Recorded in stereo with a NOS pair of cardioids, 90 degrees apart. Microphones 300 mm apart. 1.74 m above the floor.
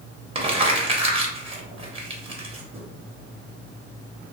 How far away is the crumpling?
About 0.8 m.